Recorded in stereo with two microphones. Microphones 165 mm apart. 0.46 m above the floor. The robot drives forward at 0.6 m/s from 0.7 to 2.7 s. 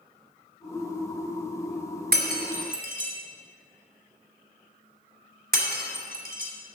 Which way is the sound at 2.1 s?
70° right (ahead or behind).